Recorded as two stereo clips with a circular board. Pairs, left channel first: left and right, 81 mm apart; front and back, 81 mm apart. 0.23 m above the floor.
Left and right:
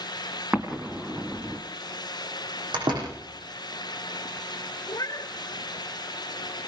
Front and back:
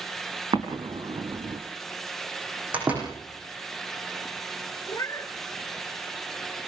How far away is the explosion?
About 3.5 m.